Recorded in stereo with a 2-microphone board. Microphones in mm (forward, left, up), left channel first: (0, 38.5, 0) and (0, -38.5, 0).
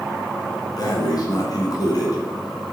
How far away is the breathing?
About 2.5 m.